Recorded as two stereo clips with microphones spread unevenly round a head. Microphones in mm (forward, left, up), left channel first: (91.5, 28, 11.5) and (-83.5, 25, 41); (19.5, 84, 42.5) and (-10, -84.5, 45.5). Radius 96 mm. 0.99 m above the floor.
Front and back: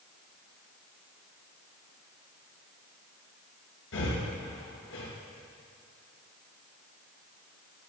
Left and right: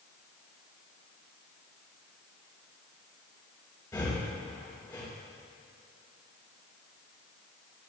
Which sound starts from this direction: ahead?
Breathing, at 3.9 s.